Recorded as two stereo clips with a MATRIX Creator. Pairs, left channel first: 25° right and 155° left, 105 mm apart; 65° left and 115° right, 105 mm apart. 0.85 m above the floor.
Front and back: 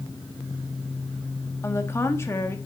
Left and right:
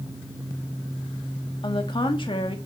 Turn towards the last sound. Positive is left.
turn(degrees=40)